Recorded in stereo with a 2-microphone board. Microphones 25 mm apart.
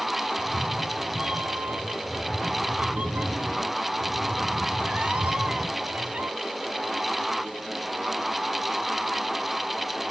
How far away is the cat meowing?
About 0.9 m.